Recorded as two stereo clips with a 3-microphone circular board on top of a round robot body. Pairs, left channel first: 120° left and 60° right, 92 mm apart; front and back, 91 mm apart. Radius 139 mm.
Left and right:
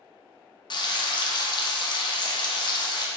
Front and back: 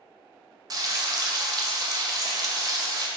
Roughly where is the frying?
Behind left.